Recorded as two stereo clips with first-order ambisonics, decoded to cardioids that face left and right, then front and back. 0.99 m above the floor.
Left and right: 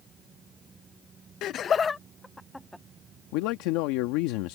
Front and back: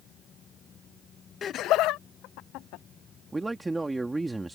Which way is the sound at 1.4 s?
60° left.